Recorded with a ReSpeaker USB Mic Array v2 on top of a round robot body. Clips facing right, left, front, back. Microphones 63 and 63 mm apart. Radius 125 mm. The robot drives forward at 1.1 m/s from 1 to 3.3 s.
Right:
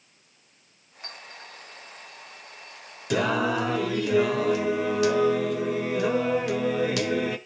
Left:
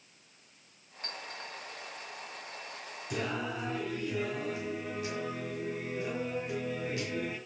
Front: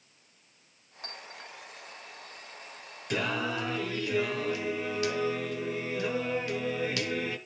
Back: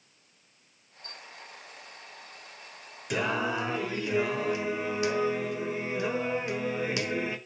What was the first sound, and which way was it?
A clink, 10° right.